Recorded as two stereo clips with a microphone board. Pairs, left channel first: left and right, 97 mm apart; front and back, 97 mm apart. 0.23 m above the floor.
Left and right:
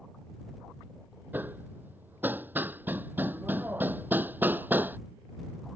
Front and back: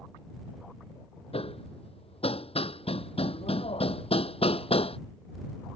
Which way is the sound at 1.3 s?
20° right.